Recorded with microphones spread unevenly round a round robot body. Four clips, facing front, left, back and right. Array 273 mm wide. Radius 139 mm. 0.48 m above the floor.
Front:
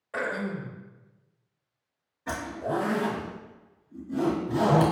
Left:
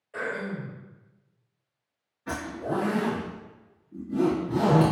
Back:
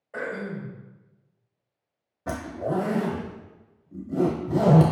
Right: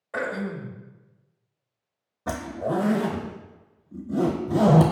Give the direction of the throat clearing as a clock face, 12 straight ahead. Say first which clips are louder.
Right 3 dB, front 1 dB; 2 o'clock.